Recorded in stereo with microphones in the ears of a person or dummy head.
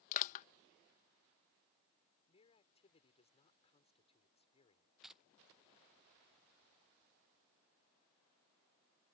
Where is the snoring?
I don't hear snoring.